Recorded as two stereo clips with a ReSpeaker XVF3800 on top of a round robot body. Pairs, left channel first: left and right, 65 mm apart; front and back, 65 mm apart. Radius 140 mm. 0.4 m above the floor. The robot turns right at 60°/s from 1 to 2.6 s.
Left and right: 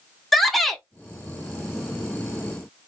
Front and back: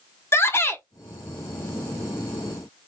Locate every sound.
0.3 s a shout: 5° left, 1.0 m